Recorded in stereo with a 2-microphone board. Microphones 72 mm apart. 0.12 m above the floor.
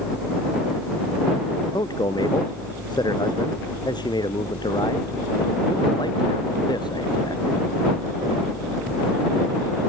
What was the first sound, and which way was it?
A man speaking, 75° left (ahead or behind).